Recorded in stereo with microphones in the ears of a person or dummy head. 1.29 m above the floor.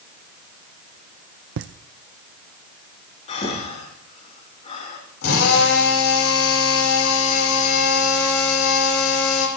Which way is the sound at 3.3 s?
35° left (ahead or behind).